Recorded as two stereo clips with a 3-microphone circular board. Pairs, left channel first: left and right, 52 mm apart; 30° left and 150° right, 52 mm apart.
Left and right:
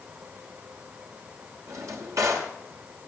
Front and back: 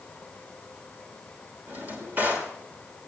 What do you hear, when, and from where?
1.7 s a drawer: 95° right, 2.5 m